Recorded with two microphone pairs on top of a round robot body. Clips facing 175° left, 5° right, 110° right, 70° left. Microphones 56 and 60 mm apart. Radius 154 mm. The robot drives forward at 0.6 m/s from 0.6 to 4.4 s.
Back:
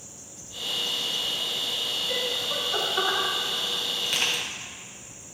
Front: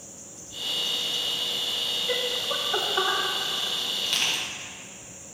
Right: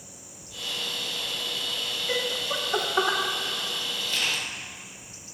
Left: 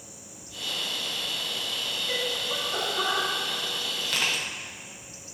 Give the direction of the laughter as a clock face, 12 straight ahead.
1 o'clock.